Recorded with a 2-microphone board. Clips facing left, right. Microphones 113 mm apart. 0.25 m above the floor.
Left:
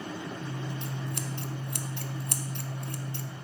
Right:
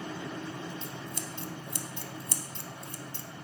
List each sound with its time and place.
0.4 s scissors: 55° left (ahead or behind), 0.6 m